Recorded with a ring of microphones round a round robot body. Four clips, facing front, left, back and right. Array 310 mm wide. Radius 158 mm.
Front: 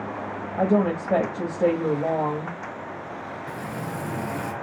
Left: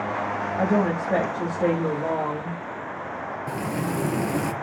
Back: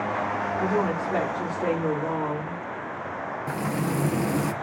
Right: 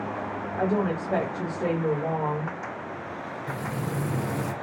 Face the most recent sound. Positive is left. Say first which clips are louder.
# left 4 dB, back 6 dB
turn(degrees=135)